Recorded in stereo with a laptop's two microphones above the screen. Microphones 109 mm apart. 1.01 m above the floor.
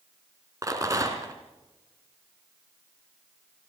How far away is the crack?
No crack in this recording.